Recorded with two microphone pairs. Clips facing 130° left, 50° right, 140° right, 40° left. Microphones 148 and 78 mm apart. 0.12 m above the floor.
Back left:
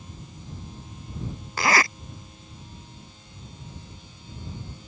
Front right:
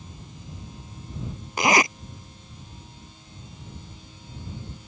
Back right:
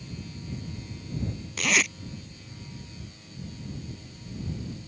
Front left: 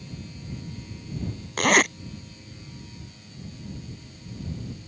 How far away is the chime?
No chime in this recording.